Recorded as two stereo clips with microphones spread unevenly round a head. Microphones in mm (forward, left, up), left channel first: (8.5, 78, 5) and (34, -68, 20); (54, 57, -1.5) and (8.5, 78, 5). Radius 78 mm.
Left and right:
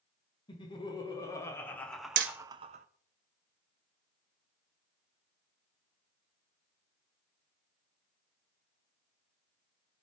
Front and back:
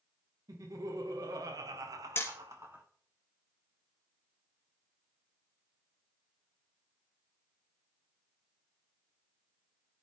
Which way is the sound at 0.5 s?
160° left.